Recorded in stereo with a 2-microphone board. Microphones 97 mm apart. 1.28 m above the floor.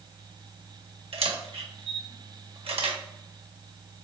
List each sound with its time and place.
1.1 s a camera shutter: 85° right, 1.1 m